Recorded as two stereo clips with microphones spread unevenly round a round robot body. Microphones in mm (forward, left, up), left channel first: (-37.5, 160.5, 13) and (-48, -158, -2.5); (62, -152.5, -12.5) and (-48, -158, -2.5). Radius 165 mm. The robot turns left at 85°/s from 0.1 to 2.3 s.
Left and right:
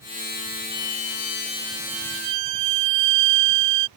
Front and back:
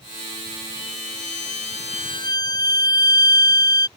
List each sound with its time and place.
0.7 s a violin: 85° left; by 3.9 s 50° right